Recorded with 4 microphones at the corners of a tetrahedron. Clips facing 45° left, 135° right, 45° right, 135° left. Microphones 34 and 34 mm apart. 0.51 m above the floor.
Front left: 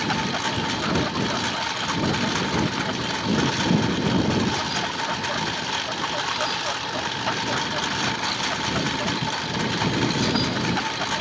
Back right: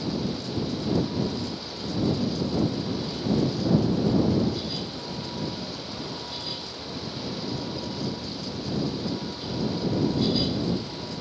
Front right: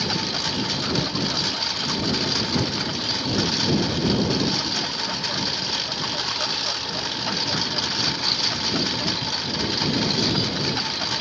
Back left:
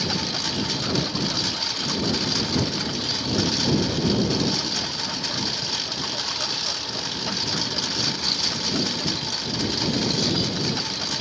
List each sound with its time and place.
0.0 s a lawn mower: 40° left; by 11.2 s 30° left